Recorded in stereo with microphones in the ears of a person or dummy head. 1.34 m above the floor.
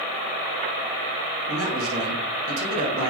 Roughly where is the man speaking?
Right.